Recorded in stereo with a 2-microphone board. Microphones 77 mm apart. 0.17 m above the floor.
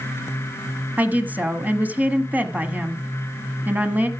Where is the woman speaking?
20° right (ahead or behind), 1.2 m.